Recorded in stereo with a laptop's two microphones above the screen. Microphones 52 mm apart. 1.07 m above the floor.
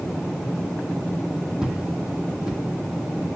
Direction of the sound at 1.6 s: 15° right (ahead or behind).